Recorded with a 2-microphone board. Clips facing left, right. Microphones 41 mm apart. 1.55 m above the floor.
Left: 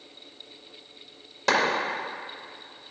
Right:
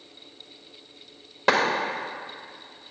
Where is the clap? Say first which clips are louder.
Right 2 dB; 20° right (ahead or behind), 1.8 m.